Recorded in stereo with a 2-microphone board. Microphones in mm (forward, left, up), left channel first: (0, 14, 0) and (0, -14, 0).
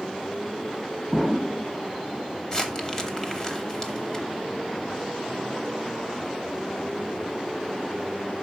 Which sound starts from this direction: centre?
An explosion, at 1.1 s.